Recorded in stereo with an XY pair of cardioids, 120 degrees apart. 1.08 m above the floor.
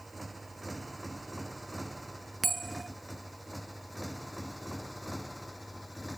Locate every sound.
0.0 s a motorcycle: 15° right; by 6.2 s 5° left
2.4 s a bell: 20° right